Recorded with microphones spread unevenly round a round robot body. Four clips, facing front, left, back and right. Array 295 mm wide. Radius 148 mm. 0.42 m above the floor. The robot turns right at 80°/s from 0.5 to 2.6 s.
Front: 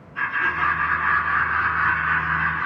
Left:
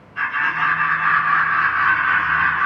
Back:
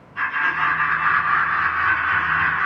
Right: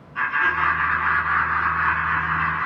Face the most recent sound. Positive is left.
turn(degrees=120)